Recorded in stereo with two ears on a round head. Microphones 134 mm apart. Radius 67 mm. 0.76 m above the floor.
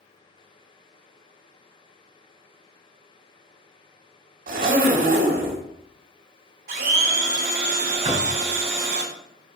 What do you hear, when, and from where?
4.5 s a zipper: 65° right (ahead or behind), 2 m
6.7 s a blender: 65° right (ahead or behind), 2 m
8.0 s knocking: 35° right (ahead or behind), 3.5 m